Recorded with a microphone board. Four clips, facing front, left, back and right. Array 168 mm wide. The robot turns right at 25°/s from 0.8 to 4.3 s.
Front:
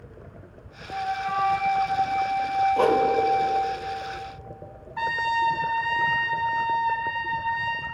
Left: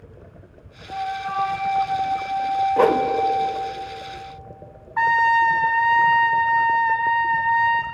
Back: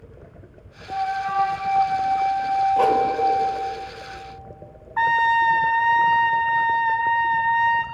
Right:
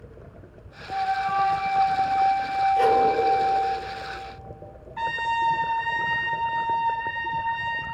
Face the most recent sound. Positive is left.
turn(degrees=130)